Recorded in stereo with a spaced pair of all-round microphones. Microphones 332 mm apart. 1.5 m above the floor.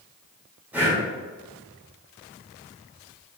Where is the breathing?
5° right (ahead or behind), 1.2 m.